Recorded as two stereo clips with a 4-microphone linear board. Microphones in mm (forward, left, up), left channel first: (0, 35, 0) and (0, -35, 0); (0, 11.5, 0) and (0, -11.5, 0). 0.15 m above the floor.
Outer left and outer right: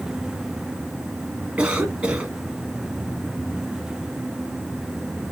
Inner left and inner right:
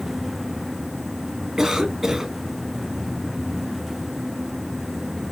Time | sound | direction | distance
1.6 | a cough | 15° right (ahead or behind) | 1.6 m